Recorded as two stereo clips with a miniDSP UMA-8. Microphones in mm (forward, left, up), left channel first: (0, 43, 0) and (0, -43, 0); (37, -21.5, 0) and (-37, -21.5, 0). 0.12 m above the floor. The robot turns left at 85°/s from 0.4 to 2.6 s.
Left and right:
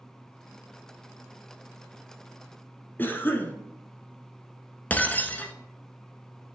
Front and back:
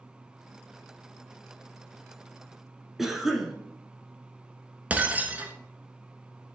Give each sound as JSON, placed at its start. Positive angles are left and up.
{"t": 3.0, "sound": "a cough", "azimuth_deg": 100, "distance_m": 1.1}
{"t": 4.9, "sound": "breaking glass", "azimuth_deg": 140, "distance_m": 0.7}